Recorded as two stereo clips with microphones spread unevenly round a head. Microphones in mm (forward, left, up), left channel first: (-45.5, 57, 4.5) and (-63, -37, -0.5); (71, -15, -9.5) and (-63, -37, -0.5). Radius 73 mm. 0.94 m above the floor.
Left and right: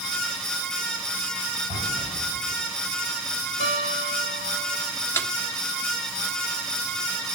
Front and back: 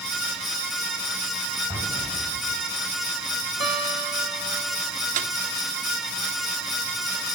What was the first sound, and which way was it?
An explosion, 100° left.